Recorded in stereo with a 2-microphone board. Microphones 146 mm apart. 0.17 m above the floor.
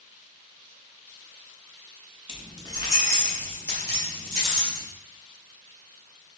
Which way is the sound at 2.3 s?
35° left (ahead or behind).